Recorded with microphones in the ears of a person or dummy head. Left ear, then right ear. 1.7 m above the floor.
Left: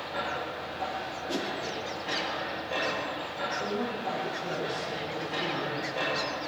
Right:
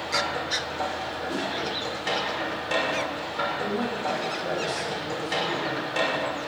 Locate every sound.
0.0 s a machine running: 70° right (ahead or behind), 6 m
1.3 s a whoosh: 30° left (ahead or behind), 2.5 m
3.6 s a woman speaking: 85° right, 9 m